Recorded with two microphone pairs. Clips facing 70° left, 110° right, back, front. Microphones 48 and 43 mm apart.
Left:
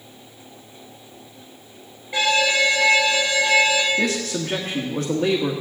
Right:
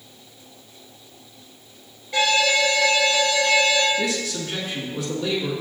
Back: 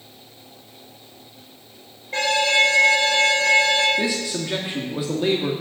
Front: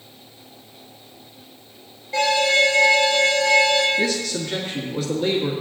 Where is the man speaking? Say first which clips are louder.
Left 2 dB, front 1 dB; 110° left, 1.6 m.